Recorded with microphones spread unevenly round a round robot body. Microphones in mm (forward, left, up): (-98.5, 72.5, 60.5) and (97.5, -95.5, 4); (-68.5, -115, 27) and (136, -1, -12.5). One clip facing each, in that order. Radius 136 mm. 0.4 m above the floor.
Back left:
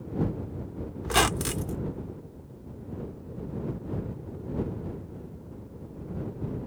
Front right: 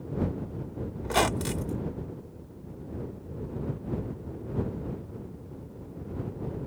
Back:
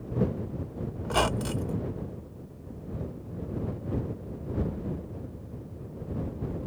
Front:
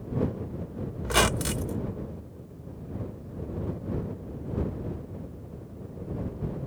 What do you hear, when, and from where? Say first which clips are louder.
1.0 s a squeak: even, front 2 dB; 65° left